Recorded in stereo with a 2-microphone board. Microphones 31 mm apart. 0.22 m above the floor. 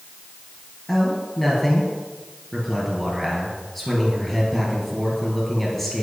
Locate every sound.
0.9 s a man speaking: 5° left (ahead or behind), 3.5 m